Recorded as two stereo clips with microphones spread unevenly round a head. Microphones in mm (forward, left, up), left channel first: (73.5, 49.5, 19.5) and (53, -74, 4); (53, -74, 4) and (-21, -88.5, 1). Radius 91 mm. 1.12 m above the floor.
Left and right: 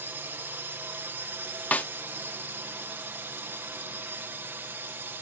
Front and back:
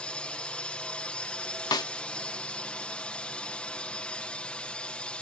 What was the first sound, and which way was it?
A drone, 50° right.